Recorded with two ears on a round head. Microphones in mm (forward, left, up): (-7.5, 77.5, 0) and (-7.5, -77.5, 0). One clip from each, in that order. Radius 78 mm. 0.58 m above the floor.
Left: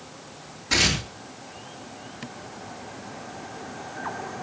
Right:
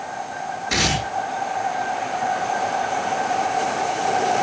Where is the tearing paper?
5° right (ahead or behind), 8.5 m.